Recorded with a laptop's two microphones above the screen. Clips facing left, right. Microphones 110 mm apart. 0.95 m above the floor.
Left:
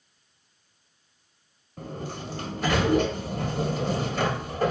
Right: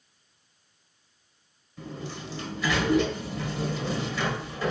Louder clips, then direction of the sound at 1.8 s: Left 2 dB; 50° left (ahead or behind).